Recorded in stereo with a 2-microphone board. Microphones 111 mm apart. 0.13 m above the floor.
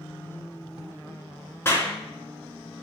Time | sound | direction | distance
1.6 | a clap | 25° left (ahead or behind) | 1.5 m